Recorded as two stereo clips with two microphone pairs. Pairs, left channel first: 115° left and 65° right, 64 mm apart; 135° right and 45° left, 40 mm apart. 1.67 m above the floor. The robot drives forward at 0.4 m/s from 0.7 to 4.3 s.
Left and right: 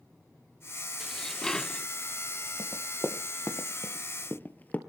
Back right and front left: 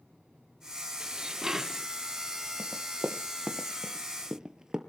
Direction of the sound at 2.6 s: 100° left.